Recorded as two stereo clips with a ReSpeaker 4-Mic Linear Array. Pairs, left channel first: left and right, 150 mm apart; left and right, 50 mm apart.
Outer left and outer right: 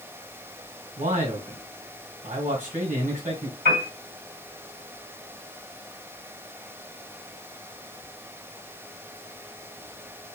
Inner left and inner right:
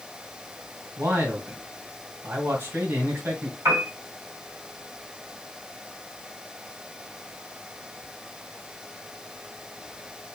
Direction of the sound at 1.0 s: 55° right (ahead or behind).